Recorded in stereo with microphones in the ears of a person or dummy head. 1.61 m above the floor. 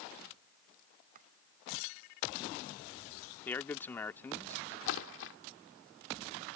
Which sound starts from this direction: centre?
A man speaking, at 3.5 s.